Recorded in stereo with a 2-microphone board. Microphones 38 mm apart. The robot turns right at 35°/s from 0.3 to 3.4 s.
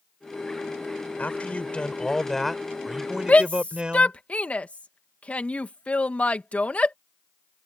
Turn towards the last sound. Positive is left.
turn(degrees=40)  # may be behind; listen again after turning